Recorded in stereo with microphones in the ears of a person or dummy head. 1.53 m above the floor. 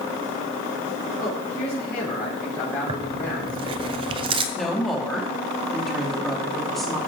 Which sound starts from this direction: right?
Tearing paper, at 2.9 s.